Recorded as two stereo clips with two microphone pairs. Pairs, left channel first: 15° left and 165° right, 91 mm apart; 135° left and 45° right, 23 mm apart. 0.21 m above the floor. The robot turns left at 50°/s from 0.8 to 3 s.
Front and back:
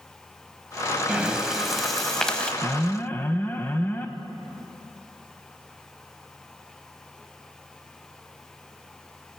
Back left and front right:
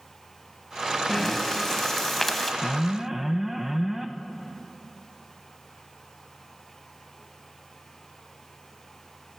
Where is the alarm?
25° left, 0.7 m; by 4.1 s 5° left, 0.7 m.